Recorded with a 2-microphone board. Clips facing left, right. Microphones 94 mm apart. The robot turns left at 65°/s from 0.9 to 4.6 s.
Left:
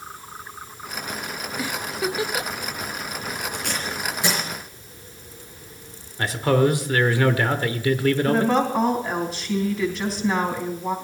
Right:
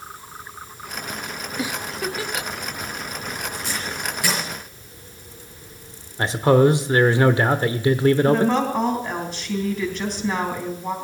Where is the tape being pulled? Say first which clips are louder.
Left 1 dB; 70° left (ahead or behind), 5.5 m; by 4.4 s 15° left (ahead or behind), 5.5 m.